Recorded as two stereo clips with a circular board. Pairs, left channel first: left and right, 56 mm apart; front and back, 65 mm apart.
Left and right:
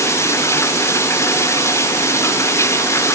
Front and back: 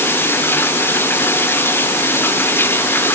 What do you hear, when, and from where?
0.0 s running water: 55° left